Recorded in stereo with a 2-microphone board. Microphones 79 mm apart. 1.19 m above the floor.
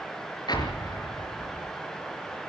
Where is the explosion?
60° left (ahead or behind), 4 m.